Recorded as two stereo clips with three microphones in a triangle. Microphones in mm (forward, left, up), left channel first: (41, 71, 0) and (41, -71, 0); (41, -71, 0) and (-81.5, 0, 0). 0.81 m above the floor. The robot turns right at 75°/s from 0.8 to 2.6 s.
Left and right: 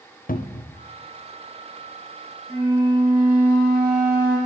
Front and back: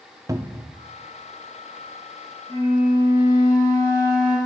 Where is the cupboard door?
85° left, 0.6 m.